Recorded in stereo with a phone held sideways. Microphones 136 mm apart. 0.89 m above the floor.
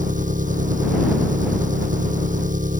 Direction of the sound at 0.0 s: 75° right (ahead or behind).